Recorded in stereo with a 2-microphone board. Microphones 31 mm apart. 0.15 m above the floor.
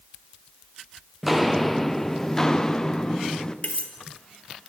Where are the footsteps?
5° right (ahead or behind), 0.8 m; by 3.5 s 20° left (ahead or behind), 1.9 m.